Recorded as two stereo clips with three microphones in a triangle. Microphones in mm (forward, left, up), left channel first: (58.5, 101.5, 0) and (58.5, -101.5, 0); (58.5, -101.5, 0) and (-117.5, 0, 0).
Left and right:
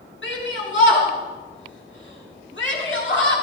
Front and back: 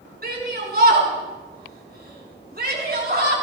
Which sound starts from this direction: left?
A shout, at 0.2 s.